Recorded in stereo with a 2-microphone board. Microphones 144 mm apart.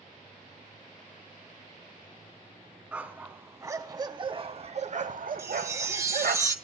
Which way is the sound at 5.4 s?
20° right (ahead or behind).